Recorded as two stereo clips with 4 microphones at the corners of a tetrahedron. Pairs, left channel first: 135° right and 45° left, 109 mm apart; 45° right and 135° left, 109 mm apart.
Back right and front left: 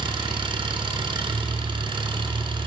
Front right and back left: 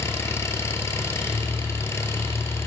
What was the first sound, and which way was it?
An engine running, 15° left.